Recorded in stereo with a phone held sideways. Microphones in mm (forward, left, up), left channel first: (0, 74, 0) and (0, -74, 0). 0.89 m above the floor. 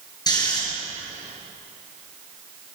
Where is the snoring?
30° left (ahead or behind), 6.5 m.